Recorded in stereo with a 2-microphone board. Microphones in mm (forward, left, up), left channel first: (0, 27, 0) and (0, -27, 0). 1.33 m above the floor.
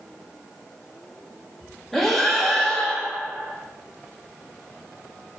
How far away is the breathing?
About 2.0 m.